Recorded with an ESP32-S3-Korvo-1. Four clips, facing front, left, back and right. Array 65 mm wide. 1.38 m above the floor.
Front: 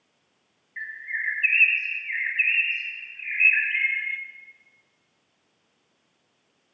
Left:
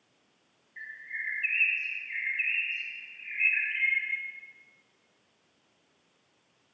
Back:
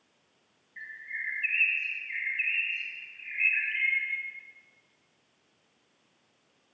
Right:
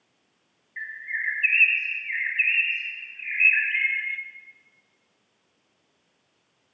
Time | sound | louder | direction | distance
0.8 | a bird | right 7 dB, front 7 dB | 45° right | 1.7 m